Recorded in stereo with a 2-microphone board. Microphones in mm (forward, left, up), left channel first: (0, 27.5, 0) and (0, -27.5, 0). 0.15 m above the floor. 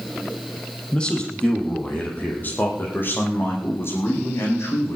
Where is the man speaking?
20° left (ahead or behind), 6 m; by 5.0 s 60° left (ahead or behind), 8.5 m.